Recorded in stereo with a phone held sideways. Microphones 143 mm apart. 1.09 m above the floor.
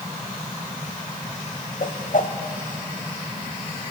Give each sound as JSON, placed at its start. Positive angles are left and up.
{"t": 1.8, "sound": "a whoosh", "side_deg": 65, "distance_m": 1.6}